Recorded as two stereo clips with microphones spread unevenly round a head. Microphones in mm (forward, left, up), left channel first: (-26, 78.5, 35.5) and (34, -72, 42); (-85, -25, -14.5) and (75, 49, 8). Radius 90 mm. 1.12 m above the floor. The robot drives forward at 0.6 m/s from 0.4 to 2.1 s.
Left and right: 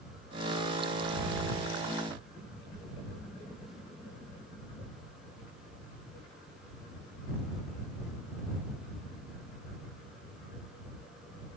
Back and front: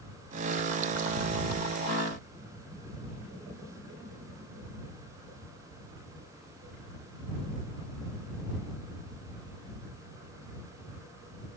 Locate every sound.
Only background noise.